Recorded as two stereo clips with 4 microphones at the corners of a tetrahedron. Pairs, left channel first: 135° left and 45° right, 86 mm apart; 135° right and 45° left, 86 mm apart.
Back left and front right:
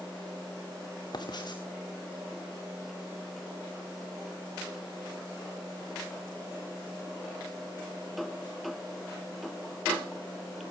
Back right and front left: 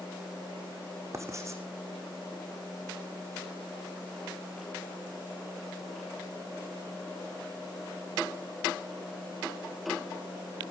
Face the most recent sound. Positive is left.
turn(degrees=100)